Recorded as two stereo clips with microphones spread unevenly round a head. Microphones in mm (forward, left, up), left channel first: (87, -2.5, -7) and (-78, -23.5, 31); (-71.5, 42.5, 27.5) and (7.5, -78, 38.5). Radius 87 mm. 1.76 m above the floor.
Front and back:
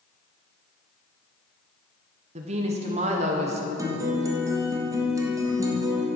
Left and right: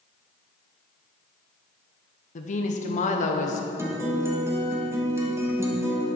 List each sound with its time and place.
2.4 s a woman speaking: 155° left, 0.8 m
3.8 s a guitar: 120° right, 1.2 m